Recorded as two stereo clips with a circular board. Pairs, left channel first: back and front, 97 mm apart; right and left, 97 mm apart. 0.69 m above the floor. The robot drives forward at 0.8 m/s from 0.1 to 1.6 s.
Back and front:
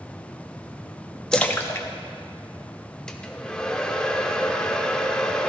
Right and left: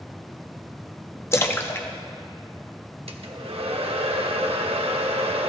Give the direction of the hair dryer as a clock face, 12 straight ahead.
9 o'clock.